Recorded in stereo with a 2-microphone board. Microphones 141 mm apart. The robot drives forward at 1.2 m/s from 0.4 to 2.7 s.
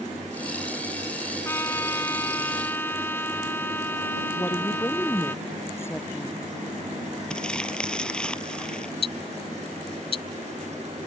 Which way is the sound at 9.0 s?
45° left (ahead or behind).